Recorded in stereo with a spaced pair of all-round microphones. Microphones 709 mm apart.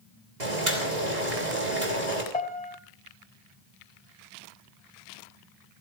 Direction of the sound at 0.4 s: 85° right.